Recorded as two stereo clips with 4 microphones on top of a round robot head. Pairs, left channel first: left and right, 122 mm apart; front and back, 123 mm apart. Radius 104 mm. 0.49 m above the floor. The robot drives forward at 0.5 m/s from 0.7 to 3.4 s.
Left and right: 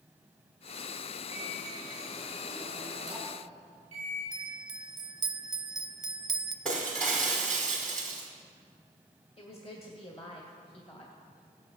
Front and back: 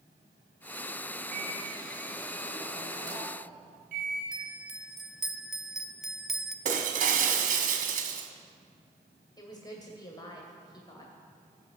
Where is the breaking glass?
175° left, 1.3 m.